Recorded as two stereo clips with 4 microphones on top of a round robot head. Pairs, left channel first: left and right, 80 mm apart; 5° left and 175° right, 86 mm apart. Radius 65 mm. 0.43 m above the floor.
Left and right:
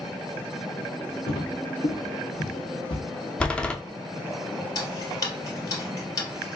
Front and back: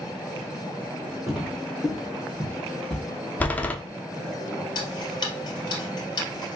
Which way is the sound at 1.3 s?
95° left.